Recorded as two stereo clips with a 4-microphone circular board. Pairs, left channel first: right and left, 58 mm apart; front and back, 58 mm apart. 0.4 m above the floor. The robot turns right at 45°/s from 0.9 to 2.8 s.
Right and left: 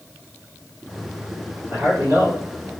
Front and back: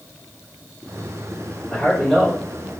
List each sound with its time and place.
1.7 s a man speaking: 65° left, 1.8 m; by 2.7 s 110° left, 1.8 m